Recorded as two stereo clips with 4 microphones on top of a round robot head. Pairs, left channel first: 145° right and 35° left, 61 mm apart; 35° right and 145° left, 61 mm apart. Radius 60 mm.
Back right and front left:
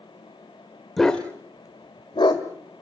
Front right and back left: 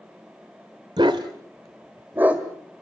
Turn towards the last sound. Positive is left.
turn(degrees=-145)